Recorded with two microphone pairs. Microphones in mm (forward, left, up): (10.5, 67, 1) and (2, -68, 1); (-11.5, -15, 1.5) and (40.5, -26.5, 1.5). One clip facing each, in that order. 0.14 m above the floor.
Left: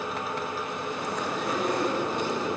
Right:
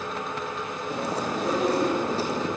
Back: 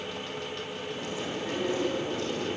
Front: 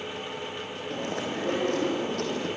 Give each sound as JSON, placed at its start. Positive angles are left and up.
{"t": 0.9, "sound": "chewing", "azimuth_deg": -35, "distance_m": 4.5}